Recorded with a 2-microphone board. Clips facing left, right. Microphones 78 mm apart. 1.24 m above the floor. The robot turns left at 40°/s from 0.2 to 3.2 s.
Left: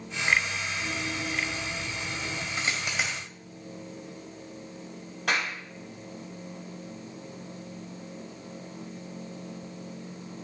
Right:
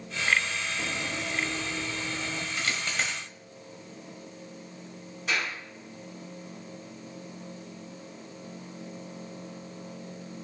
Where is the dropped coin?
30° left (ahead or behind), 2.5 m; by 3.2 s 5° left (ahead or behind), 2.5 m.